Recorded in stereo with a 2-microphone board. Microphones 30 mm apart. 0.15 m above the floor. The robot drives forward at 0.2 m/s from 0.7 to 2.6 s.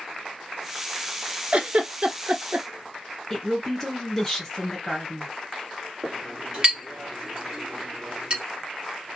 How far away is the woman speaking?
About 1.5 m.